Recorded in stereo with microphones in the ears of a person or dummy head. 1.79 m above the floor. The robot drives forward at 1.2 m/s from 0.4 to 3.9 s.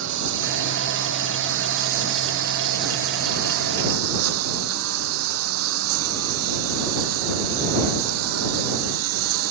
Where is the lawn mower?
70° right (ahead or behind); by 9.5 s 80° right.